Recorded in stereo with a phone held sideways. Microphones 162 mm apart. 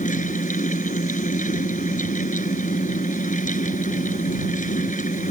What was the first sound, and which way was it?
A fan, 50° left (ahead or behind).